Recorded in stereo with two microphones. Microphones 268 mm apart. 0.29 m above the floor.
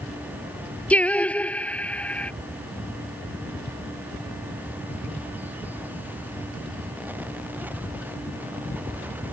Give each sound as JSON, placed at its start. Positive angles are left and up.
{"t": 0.9, "sound": "singing", "side_deg": 5}